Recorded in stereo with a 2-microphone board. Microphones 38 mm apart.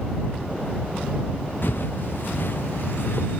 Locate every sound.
1.6 s footsteps: 55° left (ahead or behind); by 3.4 s 60° left (ahead or behind)